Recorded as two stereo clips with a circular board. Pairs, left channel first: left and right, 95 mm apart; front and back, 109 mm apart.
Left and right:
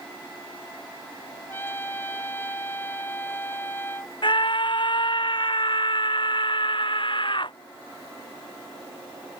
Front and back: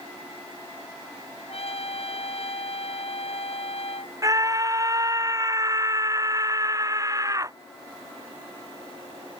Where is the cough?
No cough in this recording.